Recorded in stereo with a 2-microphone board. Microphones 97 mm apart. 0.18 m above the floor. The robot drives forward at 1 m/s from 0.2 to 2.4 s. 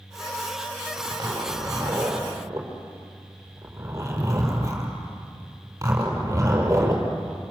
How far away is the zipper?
About 4 m.